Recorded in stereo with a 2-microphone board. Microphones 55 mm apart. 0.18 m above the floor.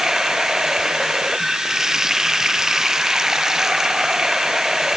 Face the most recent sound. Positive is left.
turn(degrees=-5)  # may be behind; listen again after turning